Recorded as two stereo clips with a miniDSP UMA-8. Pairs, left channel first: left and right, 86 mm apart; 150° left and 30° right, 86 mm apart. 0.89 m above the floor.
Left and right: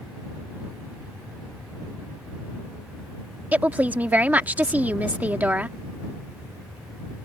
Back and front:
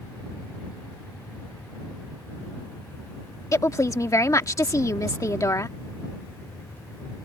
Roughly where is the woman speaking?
Behind.